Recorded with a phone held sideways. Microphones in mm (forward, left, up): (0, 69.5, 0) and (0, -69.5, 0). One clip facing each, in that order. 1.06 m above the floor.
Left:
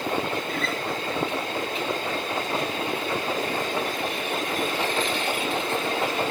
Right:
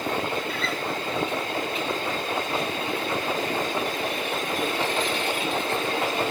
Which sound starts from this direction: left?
A guitar, at 0.5 s.